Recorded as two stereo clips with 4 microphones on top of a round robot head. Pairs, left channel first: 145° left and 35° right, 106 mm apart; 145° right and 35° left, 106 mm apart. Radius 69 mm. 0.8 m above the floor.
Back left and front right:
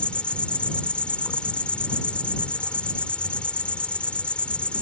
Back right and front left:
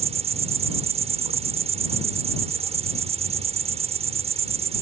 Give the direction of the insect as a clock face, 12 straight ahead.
10 o'clock.